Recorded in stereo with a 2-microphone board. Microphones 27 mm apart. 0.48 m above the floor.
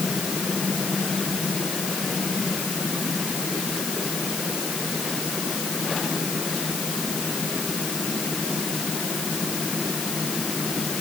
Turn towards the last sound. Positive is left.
No sound to turn to.